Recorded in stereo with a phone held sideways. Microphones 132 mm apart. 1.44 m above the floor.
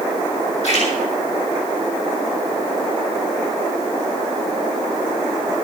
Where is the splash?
55° left (ahead or behind), 6.5 m.